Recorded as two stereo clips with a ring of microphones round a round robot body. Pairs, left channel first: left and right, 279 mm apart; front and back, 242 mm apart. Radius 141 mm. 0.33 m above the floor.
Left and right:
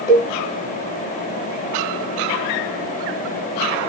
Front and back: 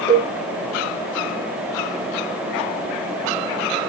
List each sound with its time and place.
0.1 s a cowbell: 60° left, 1.8 m